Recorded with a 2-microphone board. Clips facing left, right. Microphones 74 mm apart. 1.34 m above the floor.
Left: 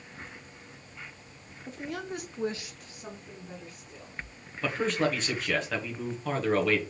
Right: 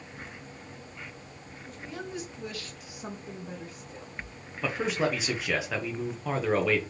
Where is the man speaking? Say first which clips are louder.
Even; 10° right (ahead or behind), 1.0 m.